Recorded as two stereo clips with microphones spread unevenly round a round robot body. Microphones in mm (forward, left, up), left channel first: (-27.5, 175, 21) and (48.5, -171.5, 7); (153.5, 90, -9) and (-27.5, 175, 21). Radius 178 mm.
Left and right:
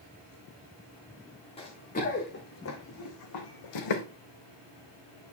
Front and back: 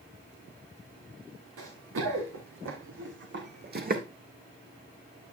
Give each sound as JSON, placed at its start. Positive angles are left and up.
{"t": 1.6, "sound": "running footsteps", "azimuth_deg": 175, "distance_m": 3.5}